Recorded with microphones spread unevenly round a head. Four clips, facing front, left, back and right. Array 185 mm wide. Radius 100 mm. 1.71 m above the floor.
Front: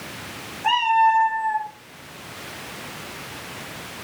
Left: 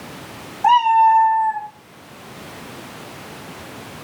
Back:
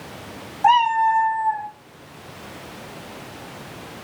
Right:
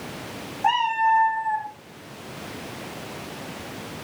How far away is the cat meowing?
About 3 m.